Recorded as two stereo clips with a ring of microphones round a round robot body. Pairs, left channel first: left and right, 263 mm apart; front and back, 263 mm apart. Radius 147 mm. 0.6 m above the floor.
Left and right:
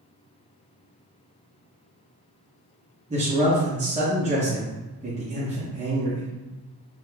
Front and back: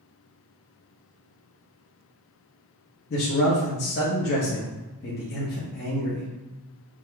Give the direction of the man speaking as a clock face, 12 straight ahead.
1 o'clock.